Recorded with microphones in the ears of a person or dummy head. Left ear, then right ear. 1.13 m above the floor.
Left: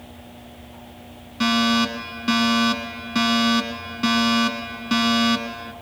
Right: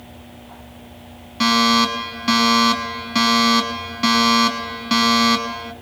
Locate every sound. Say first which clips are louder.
1.4 s a fire alarm: right 4 dB; 20° right (ahead or behind), 3.5 m